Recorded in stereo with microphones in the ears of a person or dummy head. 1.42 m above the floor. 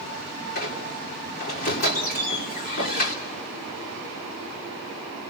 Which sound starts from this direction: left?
A squeak, at 0.6 s.